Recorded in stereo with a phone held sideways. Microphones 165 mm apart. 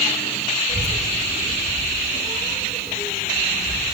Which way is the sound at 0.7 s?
35° right (ahead or behind).